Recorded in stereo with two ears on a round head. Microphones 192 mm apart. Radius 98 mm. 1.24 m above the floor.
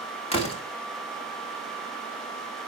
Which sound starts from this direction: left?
A door slam, at 0.3 s.